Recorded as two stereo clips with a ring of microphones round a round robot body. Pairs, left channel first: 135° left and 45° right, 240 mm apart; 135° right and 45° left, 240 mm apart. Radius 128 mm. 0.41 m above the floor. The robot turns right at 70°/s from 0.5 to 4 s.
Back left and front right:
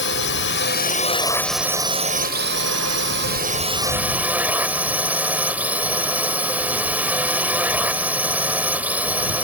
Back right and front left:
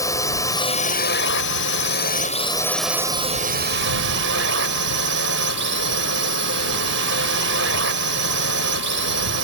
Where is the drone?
150° left; by 9.4 s 35° left.